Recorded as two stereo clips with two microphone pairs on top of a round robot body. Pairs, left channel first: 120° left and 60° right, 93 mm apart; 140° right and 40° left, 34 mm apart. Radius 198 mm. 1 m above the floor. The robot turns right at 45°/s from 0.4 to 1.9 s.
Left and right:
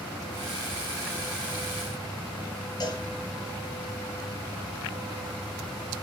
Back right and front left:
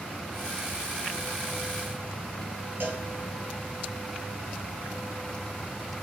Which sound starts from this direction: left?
A cowbell, at 2.8 s.